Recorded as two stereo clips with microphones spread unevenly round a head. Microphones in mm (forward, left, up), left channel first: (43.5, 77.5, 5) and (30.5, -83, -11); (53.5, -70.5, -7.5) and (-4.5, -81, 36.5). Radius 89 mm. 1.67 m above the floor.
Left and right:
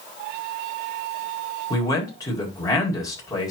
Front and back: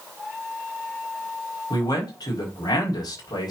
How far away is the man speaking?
About 5 m.